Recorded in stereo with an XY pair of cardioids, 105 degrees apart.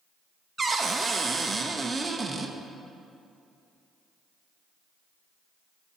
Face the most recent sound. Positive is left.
turn(degrees=-30)